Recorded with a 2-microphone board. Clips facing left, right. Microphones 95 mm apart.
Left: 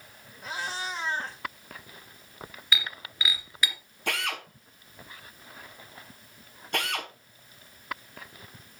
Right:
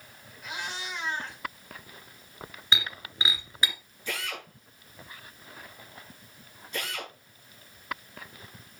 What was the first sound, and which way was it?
A cat meowing, 35° left (ahead or behind).